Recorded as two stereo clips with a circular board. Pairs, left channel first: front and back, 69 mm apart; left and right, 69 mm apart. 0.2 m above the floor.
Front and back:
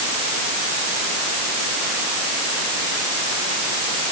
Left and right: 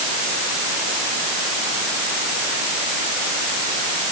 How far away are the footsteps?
No footsteps in this recording.